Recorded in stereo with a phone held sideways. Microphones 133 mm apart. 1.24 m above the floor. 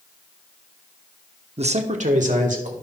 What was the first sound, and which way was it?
A man speaking, 50° right (ahead or behind).